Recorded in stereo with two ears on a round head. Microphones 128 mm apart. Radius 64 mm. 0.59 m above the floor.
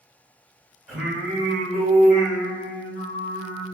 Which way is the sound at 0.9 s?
10° right (ahead or behind).